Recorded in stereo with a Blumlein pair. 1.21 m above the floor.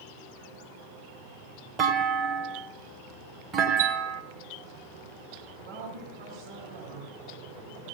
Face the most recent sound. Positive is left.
turn(degrees=-55)